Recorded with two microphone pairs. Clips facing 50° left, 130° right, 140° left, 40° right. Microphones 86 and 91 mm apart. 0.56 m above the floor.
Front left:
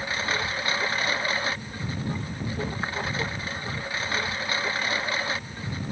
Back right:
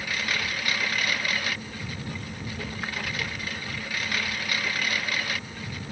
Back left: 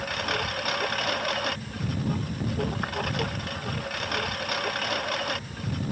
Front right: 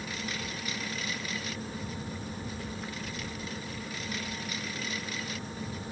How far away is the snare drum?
No snare drum in this recording.